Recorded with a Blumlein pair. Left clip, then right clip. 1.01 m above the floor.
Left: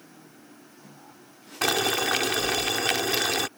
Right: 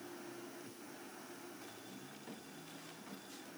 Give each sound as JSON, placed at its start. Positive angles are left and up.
{"t": 1.6, "sound": "boiling", "azimuth_deg": 45}